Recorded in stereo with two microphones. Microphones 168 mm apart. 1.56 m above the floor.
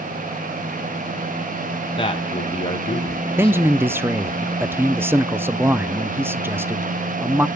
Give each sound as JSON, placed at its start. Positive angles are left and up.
{"t": 2.0, "sound": "a man speaking", "side_deg": 30, "distance_m": 2.5}
{"t": 3.4, "sound": "a man speaking", "side_deg": -15, "distance_m": 0.6}